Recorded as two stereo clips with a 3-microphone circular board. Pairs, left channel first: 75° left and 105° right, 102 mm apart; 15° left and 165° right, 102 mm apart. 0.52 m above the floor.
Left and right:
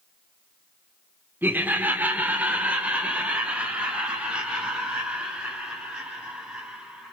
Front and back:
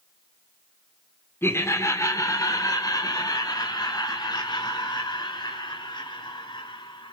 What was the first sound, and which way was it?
Laughter, 40° right.